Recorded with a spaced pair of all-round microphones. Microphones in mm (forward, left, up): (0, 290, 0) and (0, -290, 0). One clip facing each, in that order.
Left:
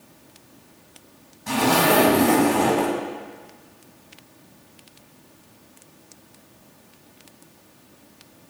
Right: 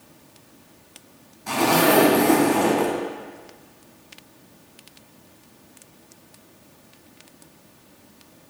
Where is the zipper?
40° left (ahead or behind), 1.7 m.